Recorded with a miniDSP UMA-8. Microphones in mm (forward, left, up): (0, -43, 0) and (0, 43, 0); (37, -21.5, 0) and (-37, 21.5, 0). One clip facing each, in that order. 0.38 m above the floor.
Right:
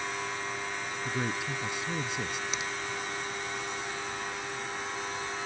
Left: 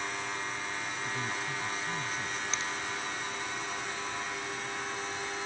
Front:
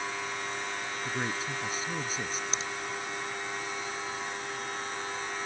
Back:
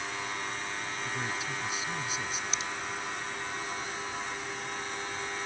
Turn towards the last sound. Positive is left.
turn(degrees=-30)